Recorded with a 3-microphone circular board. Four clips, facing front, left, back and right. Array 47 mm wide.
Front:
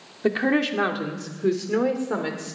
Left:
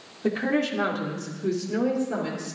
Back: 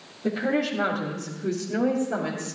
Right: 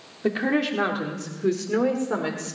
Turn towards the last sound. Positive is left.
turn(degrees=-45)